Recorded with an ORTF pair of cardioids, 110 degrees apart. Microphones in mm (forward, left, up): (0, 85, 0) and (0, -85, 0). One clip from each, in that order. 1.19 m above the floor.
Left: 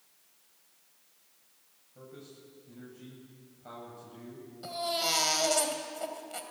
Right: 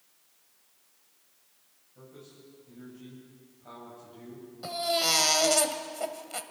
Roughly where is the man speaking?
Ahead left.